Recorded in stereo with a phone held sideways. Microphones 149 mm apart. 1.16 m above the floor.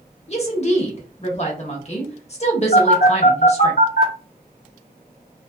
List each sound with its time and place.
0.3 s a woman speaking: 45° left (ahead or behind), 1.0 m
2.7 s a phone buzzing: 65° left (ahead or behind), 1.4 m